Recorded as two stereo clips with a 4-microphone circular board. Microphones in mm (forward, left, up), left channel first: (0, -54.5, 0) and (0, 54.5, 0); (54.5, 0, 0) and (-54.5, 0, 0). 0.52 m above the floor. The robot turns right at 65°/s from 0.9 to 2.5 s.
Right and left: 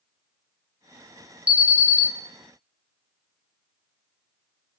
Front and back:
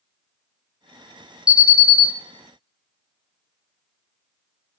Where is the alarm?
20° left, 1.5 m; by 2.1 s 55° left, 1.5 m.